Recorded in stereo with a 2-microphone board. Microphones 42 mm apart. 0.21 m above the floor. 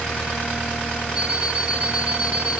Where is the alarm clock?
20° right (ahead or behind), 3.5 m.